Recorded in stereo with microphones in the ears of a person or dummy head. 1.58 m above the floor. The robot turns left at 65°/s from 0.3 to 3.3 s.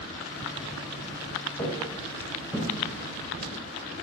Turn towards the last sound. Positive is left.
turn(degrees=-40)  # may be behind; listen again after turning